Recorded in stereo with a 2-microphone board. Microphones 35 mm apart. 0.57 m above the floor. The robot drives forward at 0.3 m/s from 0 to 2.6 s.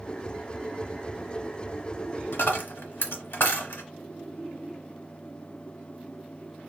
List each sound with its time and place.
2.3 s a dropped coin: 80° left, 0.9 m